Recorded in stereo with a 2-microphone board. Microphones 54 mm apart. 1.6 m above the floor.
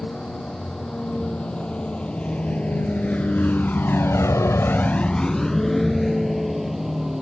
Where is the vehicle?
15° left (ahead or behind); by 7.2 s 5° right (ahead or behind).